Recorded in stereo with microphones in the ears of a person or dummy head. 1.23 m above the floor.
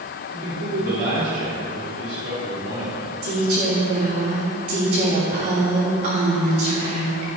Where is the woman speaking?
45° right (ahead or behind), 3 m.